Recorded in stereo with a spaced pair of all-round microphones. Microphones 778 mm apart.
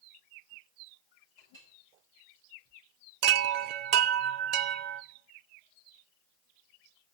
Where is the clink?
45° right (ahead or behind), 6 m.